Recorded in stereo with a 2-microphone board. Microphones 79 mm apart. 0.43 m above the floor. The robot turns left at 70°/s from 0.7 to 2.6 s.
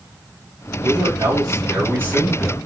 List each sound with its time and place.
0.8 s a man speaking: 65° right, 2.5 m; by 2.7 s 170° left, 2.5 m